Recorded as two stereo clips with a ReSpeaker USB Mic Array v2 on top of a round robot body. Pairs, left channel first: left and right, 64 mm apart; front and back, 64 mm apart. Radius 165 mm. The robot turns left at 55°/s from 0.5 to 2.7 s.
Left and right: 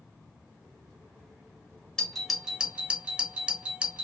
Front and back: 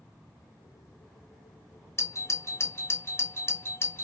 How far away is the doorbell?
About 0.9 m.